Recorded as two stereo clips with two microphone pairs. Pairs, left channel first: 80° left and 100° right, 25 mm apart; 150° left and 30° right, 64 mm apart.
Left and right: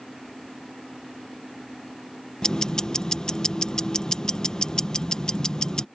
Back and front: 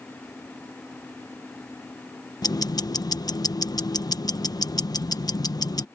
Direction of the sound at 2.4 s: 145° left.